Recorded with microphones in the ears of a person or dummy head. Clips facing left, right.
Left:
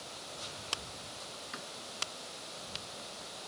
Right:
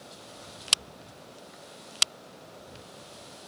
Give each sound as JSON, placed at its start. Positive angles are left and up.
{"t": 1.5, "sound": "a door slam", "side_deg": 85}